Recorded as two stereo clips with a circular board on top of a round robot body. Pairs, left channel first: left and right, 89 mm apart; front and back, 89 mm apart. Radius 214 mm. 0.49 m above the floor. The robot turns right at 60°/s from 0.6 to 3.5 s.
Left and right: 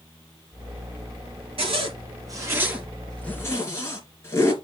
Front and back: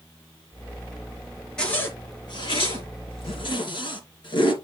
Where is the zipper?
85° right, 3 m; by 4.5 s 35° left, 3 m.